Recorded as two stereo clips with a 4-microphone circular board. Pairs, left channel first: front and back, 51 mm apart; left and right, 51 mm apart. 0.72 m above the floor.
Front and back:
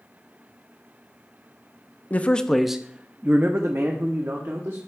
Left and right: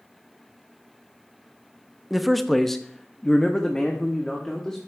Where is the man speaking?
5° right, 0.6 m; by 4.8 s 165° left, 1.4 m.